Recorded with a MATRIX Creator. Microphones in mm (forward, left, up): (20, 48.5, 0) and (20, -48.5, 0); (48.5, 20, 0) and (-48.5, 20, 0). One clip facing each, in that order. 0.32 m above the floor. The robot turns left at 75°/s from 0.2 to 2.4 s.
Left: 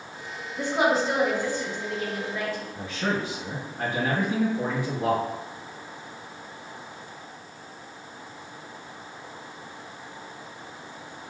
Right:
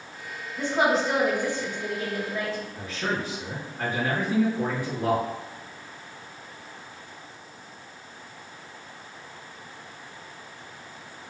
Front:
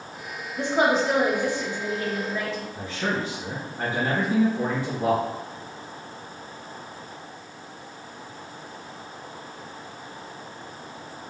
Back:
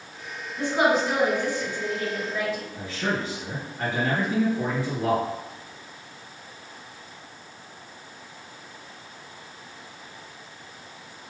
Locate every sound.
0.6 s a woman speaking: 35° left, 1.0 m; by 2.6 s 105° right, 1.0 m
2.8 s a man speaking: 40° left, 1.6 m